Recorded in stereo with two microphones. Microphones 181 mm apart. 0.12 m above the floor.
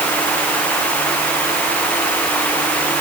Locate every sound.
Only background noise.